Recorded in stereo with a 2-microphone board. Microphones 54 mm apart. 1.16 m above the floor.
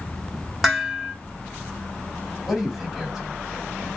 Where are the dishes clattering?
Centre (ahead or behind), 1.7 m.